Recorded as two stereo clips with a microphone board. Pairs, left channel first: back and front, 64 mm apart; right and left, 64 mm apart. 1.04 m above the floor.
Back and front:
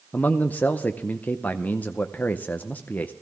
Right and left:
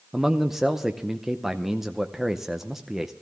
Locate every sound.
0.1 s a man speaking: 170° left, 0.6 m